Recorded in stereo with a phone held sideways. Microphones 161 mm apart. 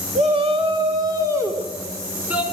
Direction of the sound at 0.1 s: 45° right (ahead or behind).